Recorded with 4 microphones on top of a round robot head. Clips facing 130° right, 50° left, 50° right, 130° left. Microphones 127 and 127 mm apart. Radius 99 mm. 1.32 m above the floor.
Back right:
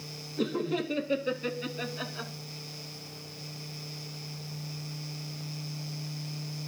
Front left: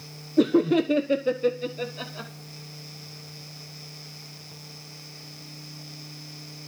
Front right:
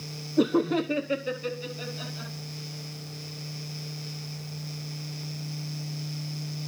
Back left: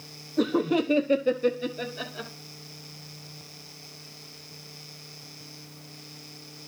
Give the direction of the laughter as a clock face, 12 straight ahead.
11 o'clock.